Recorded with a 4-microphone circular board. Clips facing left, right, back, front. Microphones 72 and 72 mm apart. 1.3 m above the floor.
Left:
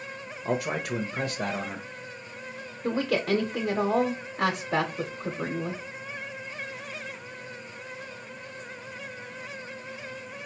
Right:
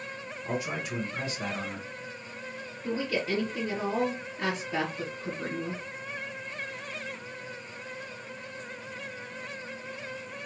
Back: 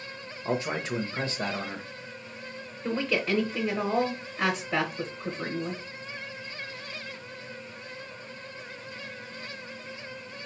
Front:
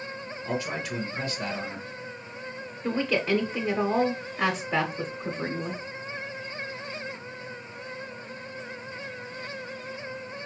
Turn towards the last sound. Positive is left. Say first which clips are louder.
# left 4 dB, front 2 dB
turn(degrees=80)